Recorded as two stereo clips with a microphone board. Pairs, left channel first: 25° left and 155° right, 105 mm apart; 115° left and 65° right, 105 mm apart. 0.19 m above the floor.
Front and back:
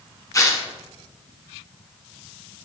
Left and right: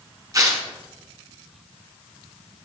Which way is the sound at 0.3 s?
25° right.